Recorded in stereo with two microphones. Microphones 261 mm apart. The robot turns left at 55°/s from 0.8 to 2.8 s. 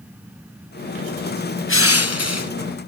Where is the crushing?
125° left, 0.8 m; by 2.5 s 80° left, 0.8 m.